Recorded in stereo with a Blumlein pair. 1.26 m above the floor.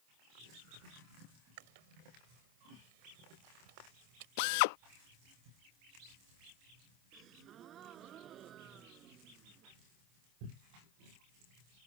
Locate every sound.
1.6 s chewing: 50° right
4.4 s a drill: 45° left
7.1 s a gasp: 30° right